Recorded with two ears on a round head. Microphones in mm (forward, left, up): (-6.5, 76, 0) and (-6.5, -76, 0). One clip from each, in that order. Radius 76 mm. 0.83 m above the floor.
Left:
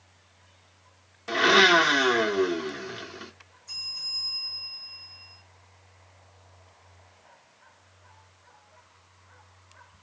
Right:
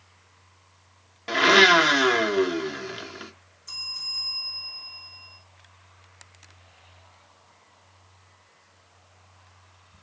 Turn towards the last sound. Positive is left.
turn(degrees=-85)